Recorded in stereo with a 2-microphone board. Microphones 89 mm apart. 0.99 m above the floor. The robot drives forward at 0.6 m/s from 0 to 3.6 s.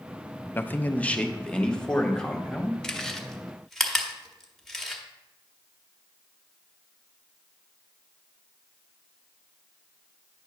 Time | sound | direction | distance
0.6 | a man speaking | 25° left (ahead or behind) | 0.5 m
2.8 | chewing | 10° left (ahead or behind) | 0.6 m